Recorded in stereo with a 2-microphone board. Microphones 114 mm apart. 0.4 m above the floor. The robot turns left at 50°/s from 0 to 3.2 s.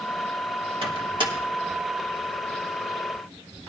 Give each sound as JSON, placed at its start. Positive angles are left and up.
{"t": 0.8, "sound": "a microwave", "side_deg": -55, "distance_m": 1.5}